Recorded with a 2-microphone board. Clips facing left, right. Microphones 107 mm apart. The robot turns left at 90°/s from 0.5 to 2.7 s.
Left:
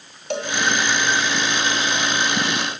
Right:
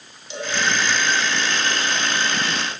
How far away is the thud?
I don't hear a thud.